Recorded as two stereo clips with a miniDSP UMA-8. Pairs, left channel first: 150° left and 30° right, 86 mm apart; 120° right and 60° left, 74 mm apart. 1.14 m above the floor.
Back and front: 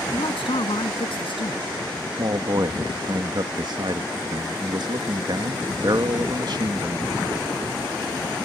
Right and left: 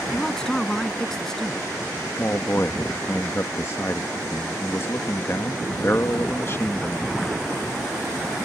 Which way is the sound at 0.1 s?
160° left.